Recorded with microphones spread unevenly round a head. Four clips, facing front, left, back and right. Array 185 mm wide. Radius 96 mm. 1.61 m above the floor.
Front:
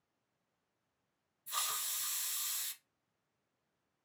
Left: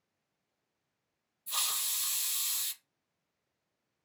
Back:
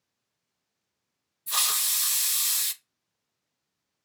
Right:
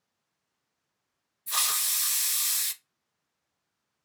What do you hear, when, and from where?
1.5 s a hiss: 160° right, 0.5 m